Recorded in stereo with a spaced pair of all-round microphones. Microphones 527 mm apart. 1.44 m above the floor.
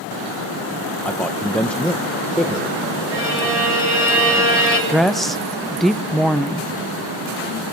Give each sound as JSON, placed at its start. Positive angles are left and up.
{"t": 1.0, "sound": "a man speaking", "side_deg": 0, "distance_m": 1.2}
{"t": 3.1, "sound": "a violin", "side_deg": -80, "distance_m": 9.0}
{"t": 4.9, "sound": "a woman speaking", "side_deg": 0, "distance_m": 1.0}